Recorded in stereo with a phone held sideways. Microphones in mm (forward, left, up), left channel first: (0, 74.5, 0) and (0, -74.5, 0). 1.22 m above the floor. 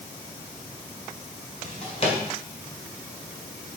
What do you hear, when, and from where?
1.6 s a drawer: 40° left (ahead or behind), 1.9 m